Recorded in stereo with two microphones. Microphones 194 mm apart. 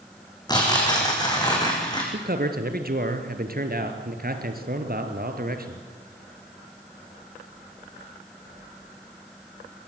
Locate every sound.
0.5 s tearing paper: 20° left (ahead or behind), 5 m
2.1 s a man speaking: 50° right (ahead or behind), 2.5 m